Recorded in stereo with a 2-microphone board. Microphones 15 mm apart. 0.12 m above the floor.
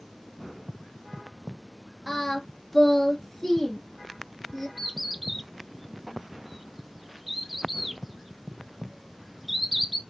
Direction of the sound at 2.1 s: 25° left (ahead or behind).